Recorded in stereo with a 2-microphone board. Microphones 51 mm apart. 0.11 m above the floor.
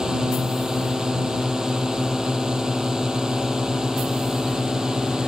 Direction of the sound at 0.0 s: 15° right (ahead or behind).